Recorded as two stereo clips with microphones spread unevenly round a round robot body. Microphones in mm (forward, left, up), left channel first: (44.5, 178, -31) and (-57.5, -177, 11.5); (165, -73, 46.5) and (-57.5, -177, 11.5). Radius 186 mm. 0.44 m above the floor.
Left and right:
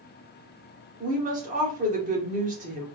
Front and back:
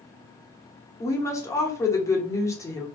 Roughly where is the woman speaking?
Ahead right.